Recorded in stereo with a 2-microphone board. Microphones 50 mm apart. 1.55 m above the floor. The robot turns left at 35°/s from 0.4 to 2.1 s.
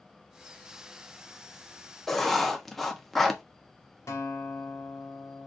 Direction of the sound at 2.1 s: Centre (ahead or behind).